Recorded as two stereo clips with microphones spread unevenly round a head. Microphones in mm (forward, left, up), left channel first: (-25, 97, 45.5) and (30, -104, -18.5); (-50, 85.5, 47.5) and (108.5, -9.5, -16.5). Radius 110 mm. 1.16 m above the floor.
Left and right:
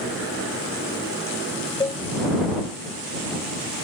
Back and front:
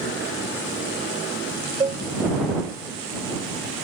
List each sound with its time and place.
1.8 s a cowbell: 45° left